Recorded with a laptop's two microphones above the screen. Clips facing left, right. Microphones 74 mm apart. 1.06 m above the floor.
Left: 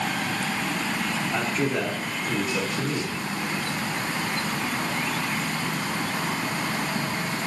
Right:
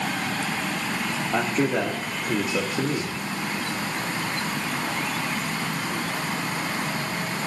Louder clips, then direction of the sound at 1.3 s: Right 4 dB; 25° right (ahead or behind).